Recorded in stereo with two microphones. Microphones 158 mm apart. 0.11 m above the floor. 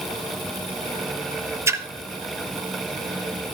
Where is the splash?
20° right (ahead or behind), 0.6 m.